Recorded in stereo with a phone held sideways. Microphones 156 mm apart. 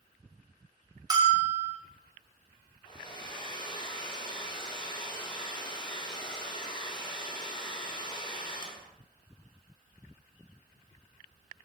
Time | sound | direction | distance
1.1 | a bell | 25° right (ahead or behind) | 0.5 m
2.9 | a hair dryer | 30° left (ahead or behind) | 0.5 m